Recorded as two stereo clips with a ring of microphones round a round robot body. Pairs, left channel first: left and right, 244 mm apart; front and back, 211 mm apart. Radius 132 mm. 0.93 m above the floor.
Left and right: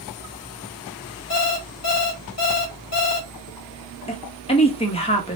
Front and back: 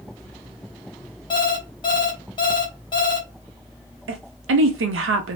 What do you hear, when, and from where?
1.3 s an alarm clock: 70° left, 1.1 m
4.1 s a woman speaking: 155° left, 0.8 m